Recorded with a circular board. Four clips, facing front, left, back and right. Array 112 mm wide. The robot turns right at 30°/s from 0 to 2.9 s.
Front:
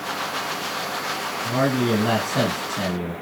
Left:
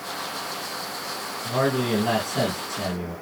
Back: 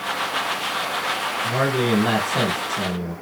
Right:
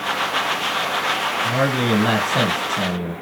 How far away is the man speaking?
About 1.9 m.